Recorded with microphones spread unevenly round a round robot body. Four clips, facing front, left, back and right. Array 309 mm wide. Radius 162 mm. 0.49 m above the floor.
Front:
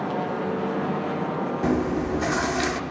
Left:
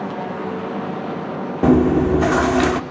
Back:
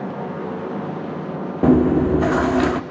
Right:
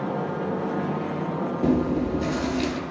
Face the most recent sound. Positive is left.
turn(degrees=100)